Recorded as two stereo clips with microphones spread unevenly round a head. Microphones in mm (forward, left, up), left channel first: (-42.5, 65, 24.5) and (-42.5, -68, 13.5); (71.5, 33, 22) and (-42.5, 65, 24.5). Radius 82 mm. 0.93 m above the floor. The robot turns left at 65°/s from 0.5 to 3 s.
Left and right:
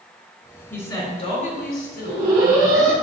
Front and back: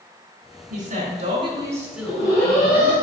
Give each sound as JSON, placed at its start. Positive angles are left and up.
{"t": 0.7, "sound": "a woman speaking", "azimuth_deg": 170, "distance_m": 3.5}
{"t": 2.0, "sound": "an alarm", "azimuth_deg": -65, "distance_m": 3.5}